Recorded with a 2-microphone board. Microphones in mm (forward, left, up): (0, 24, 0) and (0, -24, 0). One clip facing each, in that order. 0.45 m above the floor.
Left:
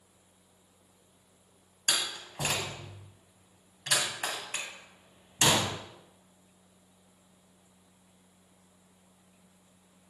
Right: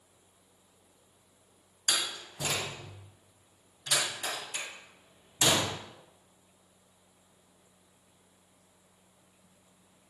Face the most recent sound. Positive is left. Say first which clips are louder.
# even
turn(degrees=60)  # may be behind; listen again after turning